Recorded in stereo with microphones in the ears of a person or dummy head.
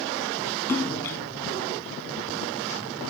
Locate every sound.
0.7 s a splash: 15° left (ahead or behind)